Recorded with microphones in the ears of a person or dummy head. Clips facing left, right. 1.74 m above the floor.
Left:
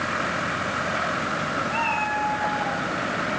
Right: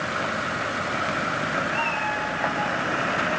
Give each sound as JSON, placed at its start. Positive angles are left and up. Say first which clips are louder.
{"t": 1.7, "sound": "a cat meowing", "louder": "left 1 dB", "side_deg": 65, "distance_m": 5.0}